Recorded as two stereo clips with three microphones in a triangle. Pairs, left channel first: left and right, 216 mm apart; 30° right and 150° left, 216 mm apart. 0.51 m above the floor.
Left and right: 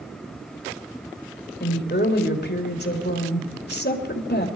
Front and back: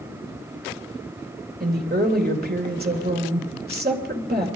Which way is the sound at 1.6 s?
115° left.